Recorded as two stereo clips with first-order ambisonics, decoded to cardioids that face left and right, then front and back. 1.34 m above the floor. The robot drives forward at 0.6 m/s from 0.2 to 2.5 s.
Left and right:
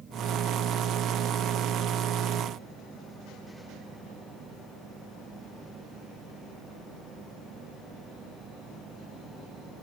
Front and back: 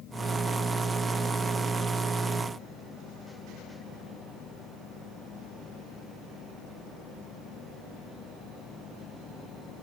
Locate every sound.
Only background noise.